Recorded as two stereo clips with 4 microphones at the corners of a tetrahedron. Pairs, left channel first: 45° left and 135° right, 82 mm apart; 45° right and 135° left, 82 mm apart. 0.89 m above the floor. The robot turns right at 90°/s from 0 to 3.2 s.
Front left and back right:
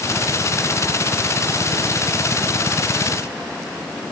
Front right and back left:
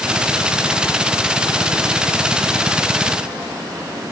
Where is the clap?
No clap in this recording.